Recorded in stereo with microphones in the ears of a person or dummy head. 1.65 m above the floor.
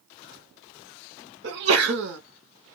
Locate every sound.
1.4 s a sneeze: 70° right (ahead or behind), 1.5 m